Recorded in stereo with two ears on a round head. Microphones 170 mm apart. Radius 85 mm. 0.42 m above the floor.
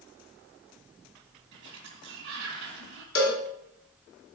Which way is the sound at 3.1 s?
65° left (ahead or behind).